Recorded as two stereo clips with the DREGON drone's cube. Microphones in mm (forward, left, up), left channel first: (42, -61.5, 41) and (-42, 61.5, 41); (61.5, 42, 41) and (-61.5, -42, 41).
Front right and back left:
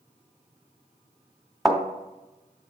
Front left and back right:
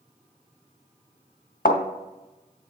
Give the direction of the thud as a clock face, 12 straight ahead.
11 o'clock.